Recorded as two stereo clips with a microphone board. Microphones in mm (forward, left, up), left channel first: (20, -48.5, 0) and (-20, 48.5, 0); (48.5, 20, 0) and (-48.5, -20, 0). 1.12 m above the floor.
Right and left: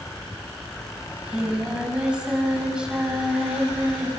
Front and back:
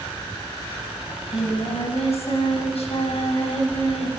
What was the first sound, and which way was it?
Singing, 30° left.